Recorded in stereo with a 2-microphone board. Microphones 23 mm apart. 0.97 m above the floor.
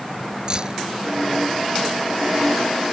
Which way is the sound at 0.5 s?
35° right (ahead or behind).